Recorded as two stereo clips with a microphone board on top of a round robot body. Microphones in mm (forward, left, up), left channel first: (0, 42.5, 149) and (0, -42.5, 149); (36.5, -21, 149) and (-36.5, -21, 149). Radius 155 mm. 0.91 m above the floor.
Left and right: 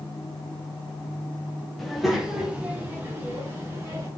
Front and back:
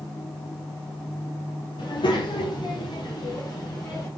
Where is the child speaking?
5° left, 2 m; by 4.1 s 35° right, 3.5 m.